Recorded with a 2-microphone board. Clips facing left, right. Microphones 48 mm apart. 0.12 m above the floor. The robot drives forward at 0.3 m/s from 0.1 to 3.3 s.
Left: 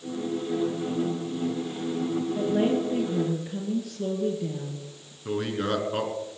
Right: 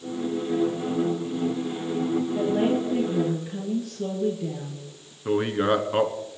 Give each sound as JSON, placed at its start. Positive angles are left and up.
{"t": 2.4, "sound": "a woman speaking", "side_deg": 0, "distance_m": 2.5}
{"t": 5.2, "sound": "a man speaking", "side_deg": -25, "distance_m": 1.2}